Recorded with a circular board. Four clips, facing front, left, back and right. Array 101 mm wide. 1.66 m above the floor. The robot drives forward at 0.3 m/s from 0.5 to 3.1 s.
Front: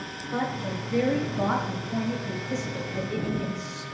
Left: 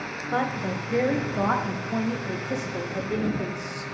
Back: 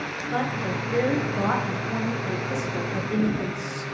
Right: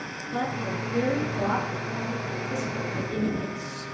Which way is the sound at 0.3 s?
110° left.